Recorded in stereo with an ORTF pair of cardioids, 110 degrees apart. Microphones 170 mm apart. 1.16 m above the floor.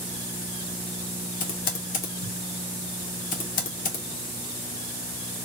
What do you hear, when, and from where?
1.4 s typing on a keyboard: 60° left, 1.4 m